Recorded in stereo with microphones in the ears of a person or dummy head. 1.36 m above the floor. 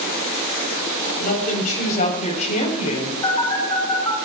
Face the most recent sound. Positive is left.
turn(degrees=25)  # may be behind; listen again after turning